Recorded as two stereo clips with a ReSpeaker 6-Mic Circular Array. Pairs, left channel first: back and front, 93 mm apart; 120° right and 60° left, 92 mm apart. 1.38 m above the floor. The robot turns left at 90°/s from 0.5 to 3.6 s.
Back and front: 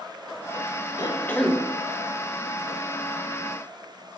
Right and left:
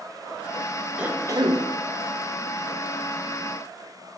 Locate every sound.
1.0 s a cough: 140° left, 1.4 m; by 1.6 s 85° left, 1.4 m